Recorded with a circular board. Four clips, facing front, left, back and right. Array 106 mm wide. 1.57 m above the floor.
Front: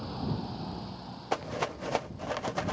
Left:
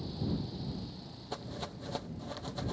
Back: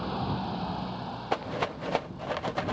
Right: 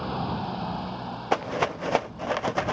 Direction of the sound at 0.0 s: 115° right.